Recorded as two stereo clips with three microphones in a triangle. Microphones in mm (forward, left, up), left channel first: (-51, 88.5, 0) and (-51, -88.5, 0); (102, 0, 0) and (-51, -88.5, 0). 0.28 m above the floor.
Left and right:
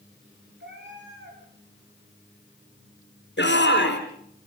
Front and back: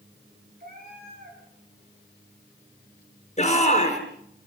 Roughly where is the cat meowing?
Right.